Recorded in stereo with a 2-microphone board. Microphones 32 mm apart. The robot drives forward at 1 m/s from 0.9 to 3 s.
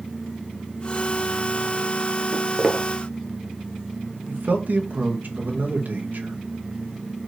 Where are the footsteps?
40° right (ahead or behind), 2.0 m.